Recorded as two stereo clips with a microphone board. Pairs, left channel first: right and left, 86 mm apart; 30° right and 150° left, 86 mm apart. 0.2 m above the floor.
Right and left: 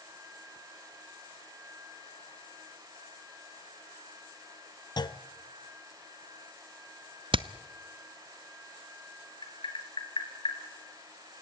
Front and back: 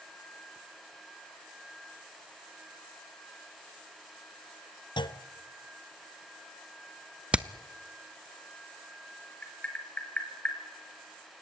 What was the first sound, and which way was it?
A clunk, 55° right.